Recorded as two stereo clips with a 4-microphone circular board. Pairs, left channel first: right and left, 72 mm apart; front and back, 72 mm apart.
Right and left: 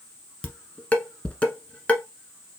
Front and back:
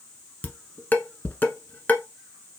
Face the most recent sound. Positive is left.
turn(degrees=-35)